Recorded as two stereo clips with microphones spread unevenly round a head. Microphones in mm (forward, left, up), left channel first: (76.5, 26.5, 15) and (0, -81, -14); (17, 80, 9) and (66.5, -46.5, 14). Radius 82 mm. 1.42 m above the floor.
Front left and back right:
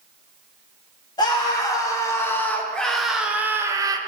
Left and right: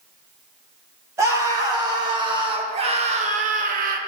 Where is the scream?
Straight ahead, 1.8 m; by 4.0 s 65° right, 1.0 m.